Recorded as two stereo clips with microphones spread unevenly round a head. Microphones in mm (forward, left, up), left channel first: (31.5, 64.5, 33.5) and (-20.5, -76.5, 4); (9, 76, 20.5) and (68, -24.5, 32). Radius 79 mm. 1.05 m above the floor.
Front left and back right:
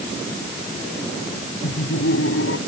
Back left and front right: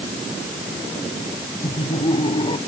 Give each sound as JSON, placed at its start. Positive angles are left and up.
{"t": 1.6, "sound": "laughter", "azimuth_deg": 75}